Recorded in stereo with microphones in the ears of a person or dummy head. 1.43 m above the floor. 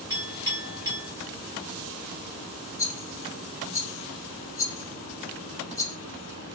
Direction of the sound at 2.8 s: 15° left (ahead or behind).